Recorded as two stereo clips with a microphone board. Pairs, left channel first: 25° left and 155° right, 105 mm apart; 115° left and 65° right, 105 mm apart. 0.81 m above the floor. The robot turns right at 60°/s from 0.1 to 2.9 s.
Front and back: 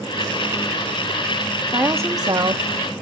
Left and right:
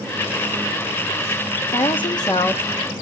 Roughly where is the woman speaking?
Behind left.